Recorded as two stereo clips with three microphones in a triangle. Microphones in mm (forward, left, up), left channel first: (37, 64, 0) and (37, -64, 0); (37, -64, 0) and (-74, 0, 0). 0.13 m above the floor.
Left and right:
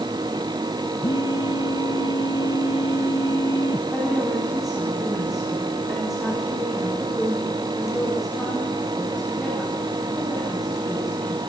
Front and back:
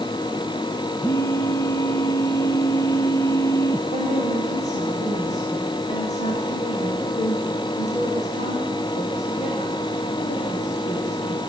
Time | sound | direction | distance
1.0 | a phone buzzing | 35° left | 1.2 m
3.9 | a woman speaking | straight ahead | 7.5 m